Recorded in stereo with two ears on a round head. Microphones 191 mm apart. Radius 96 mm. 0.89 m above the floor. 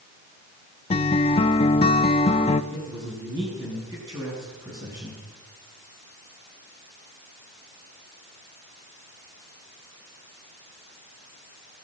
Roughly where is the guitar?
Left.